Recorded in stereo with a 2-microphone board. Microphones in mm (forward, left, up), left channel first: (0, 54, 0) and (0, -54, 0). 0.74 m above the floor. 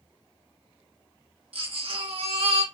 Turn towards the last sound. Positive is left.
turn(degrees=-60)  # may be behind; listen again after turning